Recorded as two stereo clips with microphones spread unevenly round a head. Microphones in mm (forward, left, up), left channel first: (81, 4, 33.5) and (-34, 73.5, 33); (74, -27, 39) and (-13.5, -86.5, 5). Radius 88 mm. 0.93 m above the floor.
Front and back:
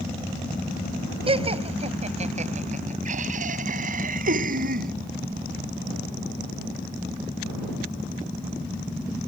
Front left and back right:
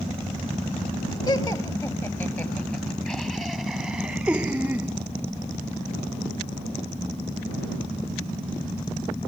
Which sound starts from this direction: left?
Laughter, at 1.3 s.